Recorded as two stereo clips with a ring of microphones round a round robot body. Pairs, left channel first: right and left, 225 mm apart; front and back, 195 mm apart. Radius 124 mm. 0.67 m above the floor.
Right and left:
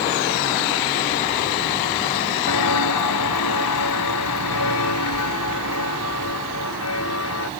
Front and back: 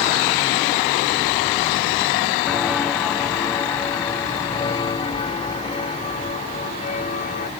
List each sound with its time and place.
2.5 s footsteps: 90° right; by 7.5 s 60° right